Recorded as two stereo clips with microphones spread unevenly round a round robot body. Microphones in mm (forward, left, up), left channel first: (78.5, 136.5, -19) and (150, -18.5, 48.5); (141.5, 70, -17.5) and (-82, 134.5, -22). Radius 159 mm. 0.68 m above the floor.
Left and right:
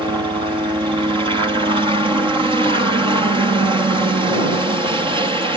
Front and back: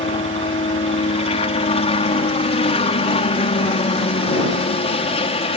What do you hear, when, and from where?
0.0 s a helicopter: 10° left